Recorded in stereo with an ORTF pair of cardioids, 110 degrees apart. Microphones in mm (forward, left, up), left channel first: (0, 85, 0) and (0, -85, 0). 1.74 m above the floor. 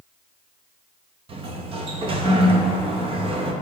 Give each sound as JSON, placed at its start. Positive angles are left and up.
{"t": 1.3, "sound": "a sliding door", "azimuth_deg": -30, "distance_m": 0.8}